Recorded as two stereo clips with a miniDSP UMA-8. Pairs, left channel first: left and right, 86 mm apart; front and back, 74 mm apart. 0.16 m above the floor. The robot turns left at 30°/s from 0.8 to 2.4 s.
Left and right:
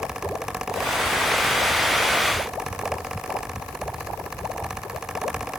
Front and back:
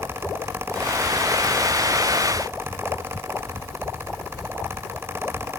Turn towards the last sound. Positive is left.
No sound to turn to.